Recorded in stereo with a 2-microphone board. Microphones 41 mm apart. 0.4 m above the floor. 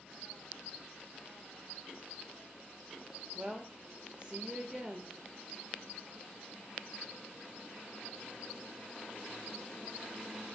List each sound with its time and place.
3.4 s a woman speaking: 30° right (ahead or behind), 1.1 m